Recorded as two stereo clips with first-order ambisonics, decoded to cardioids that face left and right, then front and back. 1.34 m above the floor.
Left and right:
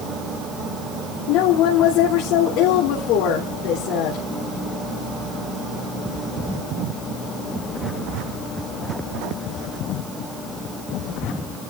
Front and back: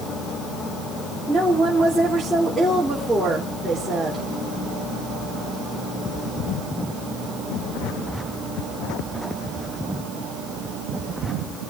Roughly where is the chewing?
No chewing in this recording.